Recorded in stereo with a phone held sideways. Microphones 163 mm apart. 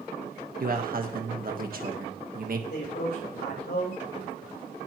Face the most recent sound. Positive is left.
turn(degrees=90)